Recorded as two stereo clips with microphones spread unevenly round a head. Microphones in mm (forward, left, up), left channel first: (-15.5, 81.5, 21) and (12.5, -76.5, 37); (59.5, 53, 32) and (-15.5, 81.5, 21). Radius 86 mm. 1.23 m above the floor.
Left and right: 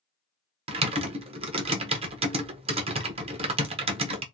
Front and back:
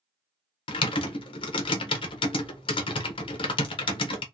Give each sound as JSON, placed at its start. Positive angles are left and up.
{"t": 0.7, "sound": "typing on a keyboard", "azimuth_deg": -25, "distance_m": 0.8}